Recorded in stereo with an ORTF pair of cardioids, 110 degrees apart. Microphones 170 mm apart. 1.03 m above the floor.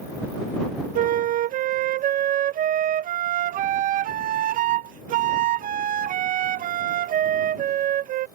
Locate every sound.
0.9 s a flute: 55° right